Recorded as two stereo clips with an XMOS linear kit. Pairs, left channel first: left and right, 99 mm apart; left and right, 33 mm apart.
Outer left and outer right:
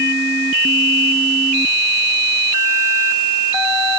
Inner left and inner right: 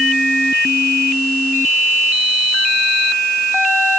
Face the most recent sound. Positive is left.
No sound to turn to.